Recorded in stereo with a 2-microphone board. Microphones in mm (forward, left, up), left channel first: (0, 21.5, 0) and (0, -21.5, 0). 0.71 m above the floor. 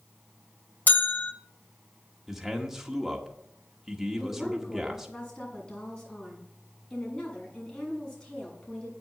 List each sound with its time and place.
0.9 s a bell: 50° left (ahead or behind), 0.8 m
2.3 s a man speaking: 5° right (ahead or behind), 1.5 m
4.2 s a woman speaking: 25° left (ahead or behind), 7 m